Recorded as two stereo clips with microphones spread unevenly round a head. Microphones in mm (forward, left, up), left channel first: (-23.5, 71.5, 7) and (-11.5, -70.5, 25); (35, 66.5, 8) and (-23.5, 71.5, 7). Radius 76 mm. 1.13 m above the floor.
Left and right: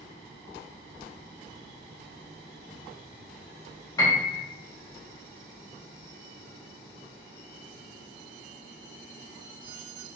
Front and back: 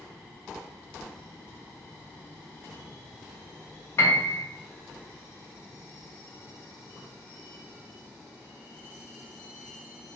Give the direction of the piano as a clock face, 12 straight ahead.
11 o'clock.